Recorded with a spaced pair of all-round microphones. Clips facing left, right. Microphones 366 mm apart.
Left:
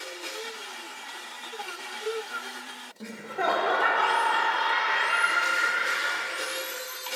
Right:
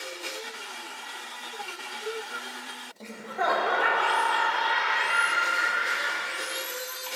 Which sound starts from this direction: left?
Laughter, at 3.0 s.